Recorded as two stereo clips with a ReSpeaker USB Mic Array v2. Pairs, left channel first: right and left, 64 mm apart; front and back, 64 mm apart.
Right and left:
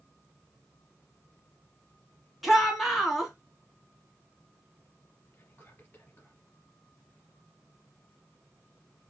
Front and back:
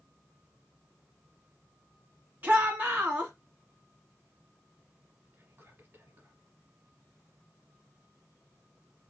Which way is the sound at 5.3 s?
140° right.